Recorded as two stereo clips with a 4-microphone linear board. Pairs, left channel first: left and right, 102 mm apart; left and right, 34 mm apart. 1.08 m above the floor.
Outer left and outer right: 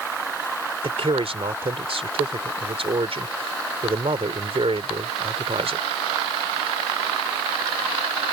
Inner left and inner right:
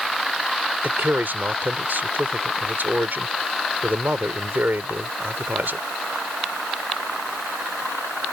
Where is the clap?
I don't hear a clap.